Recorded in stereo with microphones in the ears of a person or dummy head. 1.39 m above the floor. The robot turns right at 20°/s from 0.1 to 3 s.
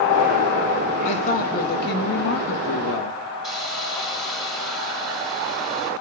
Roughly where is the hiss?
Centre.